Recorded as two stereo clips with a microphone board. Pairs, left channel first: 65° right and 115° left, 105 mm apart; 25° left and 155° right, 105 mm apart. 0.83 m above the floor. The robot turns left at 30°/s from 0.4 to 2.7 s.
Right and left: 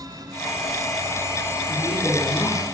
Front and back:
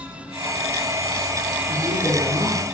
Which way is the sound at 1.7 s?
110° right.